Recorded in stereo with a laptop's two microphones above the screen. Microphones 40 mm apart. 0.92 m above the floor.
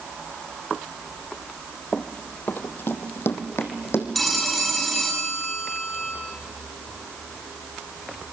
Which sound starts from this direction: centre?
A phone ringing, at 4.2 s.